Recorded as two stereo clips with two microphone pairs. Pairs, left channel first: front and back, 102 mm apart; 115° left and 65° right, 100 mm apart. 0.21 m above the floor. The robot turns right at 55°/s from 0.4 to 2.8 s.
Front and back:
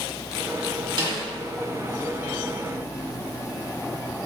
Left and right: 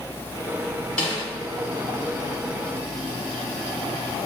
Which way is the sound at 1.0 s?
175° right.